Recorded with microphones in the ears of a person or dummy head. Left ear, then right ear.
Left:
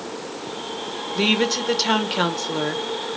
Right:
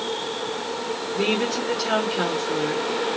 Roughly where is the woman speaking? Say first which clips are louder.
Left 4 dB; left.